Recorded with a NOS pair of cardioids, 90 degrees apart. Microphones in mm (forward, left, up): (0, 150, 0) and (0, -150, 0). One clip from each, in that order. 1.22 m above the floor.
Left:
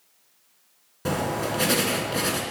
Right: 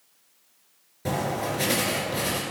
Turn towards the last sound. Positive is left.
turn(degrees=30)